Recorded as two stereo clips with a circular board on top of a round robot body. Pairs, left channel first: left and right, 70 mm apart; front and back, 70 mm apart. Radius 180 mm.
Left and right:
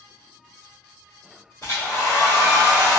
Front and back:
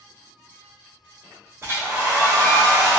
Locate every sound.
1.6 s a hair dryer: 125° left, 2.0 m